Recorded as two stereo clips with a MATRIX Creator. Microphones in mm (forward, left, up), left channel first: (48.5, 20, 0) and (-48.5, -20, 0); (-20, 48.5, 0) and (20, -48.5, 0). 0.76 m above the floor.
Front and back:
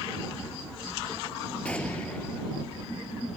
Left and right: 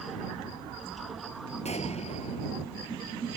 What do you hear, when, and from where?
1.6 s an explosion: 100° left